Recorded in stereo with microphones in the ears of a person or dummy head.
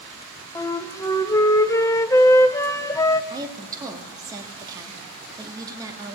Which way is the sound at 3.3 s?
20° right (ahead or behind).